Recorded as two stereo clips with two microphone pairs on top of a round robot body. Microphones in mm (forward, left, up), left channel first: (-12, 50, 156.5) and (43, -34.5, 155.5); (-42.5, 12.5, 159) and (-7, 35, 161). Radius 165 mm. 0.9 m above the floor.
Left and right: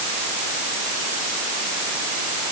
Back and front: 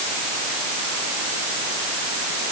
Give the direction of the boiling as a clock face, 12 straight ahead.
I don't hear boiling.